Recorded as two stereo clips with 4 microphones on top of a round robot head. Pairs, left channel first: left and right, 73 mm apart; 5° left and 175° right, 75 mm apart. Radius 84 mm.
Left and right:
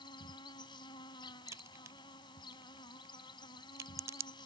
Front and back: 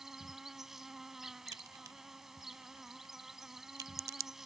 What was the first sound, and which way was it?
An insect, 100° left.